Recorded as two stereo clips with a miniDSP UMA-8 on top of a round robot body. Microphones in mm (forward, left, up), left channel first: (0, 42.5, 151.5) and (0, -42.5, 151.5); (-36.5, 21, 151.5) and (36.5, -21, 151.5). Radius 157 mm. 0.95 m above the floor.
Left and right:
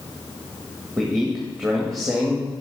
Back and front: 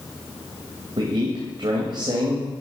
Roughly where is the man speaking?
Ahead.